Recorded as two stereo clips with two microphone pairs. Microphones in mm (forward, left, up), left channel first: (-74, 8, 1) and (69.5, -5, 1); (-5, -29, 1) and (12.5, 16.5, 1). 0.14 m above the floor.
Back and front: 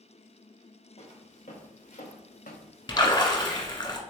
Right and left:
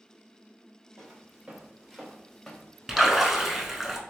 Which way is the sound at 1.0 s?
135° left.